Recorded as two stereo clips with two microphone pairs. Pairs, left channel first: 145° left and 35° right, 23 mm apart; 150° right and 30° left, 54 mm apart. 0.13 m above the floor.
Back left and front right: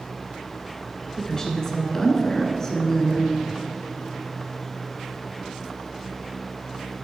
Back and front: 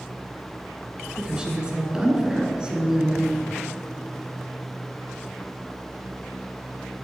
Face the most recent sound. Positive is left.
turn(degrees=95)